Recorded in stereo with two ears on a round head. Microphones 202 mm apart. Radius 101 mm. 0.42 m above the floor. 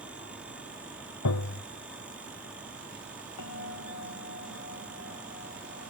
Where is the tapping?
75° left (ahead or behind).